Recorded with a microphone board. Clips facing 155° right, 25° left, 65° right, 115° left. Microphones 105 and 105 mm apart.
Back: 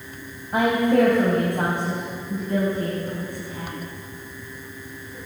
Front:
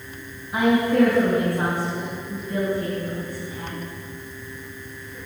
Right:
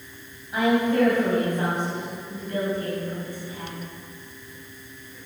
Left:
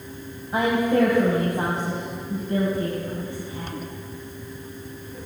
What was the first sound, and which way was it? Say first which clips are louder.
A woman speaking: even, even; 165° left.